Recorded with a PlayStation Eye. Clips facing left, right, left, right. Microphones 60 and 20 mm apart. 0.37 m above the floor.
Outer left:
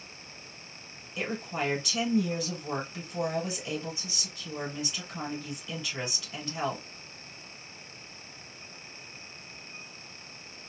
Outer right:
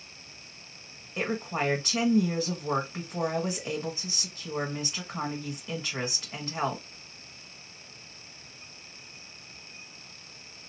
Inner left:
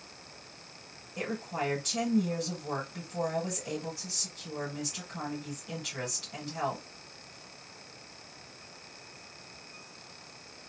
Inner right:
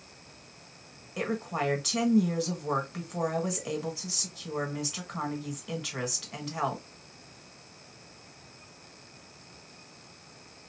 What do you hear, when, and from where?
1.2 s a woman speaking: 40° right (ahead or behind), 1.8 m